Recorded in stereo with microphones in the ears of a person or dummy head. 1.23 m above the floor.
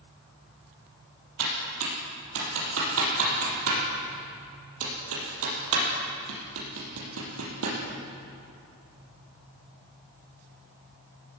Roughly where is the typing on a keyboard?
Right.